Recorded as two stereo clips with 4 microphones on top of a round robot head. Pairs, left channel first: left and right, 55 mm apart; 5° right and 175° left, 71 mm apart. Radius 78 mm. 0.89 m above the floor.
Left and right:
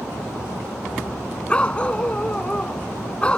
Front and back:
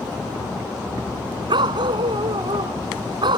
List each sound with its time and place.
1.5 s a dog barking: 160° left